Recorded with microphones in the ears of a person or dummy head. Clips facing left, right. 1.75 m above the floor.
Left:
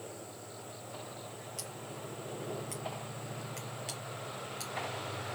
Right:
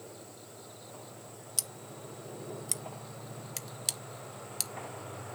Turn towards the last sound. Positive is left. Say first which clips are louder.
# left 2 dB
turn(degrees=-60)  # may be behind; listen again after turning